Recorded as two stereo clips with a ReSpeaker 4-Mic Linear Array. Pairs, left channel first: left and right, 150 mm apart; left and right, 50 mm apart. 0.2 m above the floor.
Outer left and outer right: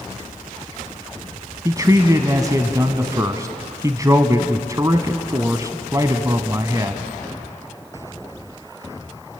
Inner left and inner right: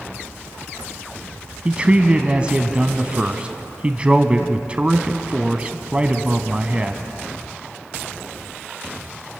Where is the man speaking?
25° right (ahead or behind), 1.3 m.